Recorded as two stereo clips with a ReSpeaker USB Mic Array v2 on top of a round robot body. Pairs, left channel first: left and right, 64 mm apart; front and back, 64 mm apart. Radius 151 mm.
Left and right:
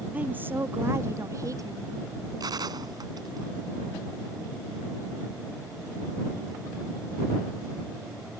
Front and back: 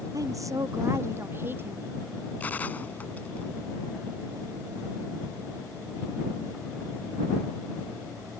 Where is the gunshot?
65° right.